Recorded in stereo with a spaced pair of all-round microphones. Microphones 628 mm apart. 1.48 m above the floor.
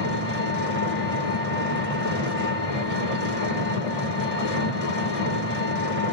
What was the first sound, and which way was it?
An engine running, 65° left (ahead or behind).